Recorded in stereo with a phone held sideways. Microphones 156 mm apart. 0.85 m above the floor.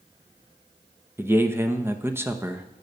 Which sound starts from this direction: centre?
A man speaking, at 1.2 s.